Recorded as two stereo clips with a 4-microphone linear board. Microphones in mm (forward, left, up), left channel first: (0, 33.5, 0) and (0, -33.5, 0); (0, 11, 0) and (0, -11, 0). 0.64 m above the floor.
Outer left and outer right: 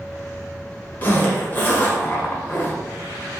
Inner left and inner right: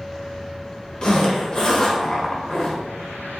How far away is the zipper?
About 0.7 m.